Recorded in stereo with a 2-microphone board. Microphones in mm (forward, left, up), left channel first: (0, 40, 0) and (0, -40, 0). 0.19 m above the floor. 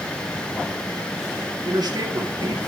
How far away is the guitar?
No guitar in this recording.